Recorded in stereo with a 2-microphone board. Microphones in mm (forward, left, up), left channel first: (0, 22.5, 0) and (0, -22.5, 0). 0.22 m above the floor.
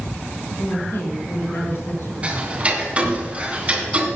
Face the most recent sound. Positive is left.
turn(degrees=-30)  # may be behind; listen again after turning